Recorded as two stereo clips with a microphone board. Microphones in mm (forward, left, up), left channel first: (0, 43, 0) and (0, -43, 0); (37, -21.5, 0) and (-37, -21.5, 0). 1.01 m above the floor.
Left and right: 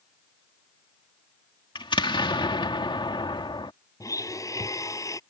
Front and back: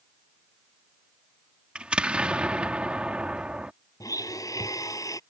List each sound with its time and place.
1.8 s an explosion: 105° left
4.0 s a blender: 40° left